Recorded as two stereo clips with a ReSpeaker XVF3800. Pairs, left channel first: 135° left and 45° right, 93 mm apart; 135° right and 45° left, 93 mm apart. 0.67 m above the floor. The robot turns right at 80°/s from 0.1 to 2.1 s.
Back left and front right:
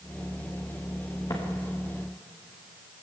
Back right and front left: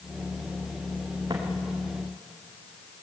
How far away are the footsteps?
About 4.5 m.